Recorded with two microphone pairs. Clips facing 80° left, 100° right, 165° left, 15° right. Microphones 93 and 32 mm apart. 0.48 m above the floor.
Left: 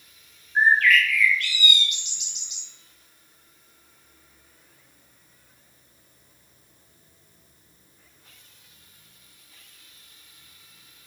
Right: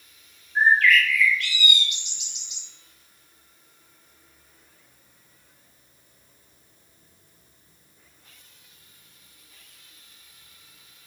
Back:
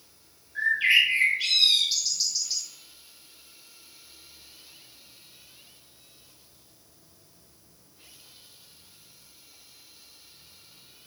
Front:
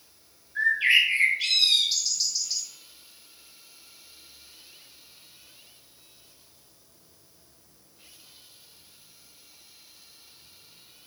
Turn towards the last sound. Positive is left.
turn(degrees=75)